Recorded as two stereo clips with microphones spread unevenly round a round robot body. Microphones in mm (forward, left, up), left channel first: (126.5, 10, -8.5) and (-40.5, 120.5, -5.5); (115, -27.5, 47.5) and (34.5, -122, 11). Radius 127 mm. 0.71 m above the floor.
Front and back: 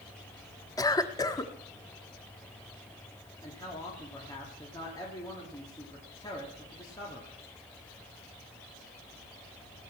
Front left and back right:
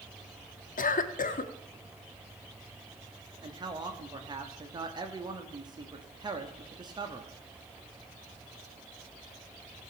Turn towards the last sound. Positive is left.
turn(degrees=-105)